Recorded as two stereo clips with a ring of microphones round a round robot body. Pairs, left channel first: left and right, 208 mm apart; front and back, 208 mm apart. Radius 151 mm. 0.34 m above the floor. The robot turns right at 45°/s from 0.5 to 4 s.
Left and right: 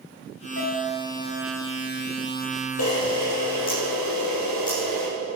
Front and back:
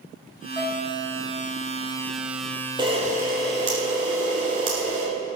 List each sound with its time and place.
0.6 s a piano: 70° left, 3 m; by 1.0 s 90° left, 3 m
2.8 s a camera shutter: 110° left, 5 m; by 5.1 s 165° left, 5 m